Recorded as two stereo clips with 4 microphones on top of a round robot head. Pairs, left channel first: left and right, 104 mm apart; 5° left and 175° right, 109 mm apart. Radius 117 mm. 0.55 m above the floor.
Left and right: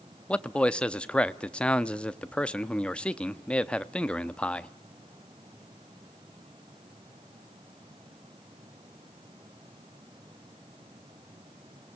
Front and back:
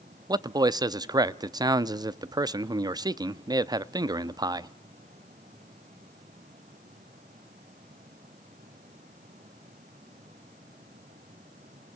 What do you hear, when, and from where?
0.3 s a man speaking: 160° left, 0.7 m